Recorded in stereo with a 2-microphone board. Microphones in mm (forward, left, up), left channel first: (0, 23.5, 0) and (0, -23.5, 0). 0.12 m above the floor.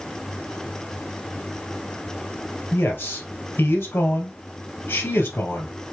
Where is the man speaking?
55° left (ahead or behind), 2.5 m.